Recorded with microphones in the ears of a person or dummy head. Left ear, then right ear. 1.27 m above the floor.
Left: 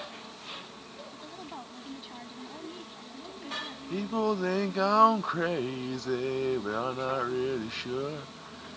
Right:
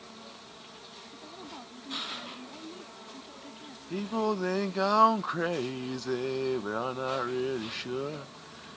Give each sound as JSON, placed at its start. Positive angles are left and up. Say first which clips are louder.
{"t": 1.1, "sound": "a woman speaking", "louder": "left 2 dB", "side_deg": 15}
{"t": 3.9, "sound": "singing", "louder": "left 1 dB", "side_deg": -5}